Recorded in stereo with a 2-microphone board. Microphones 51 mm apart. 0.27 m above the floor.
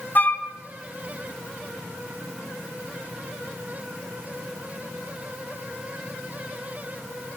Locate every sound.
0.1 s a flute: 35° left (ahead or behind), 1.3 m